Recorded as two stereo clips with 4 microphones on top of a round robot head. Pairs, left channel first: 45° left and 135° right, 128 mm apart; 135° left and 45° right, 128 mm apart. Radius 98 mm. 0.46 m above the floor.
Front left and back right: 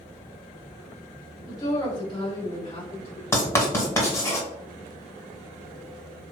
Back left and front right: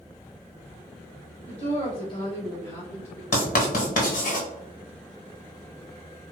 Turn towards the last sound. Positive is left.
turn(degrees=115)